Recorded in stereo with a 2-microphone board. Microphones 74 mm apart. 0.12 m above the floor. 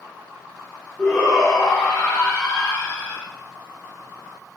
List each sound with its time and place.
1.0 s a shout: 10° left (ahead or behind), 10 m; by 3.3 s 15° left (ahead or behind), 7 m